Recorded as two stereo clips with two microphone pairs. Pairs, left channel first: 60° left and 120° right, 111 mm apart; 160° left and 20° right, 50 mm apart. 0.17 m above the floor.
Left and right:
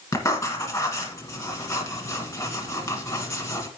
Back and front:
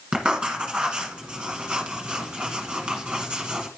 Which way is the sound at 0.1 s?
40° left.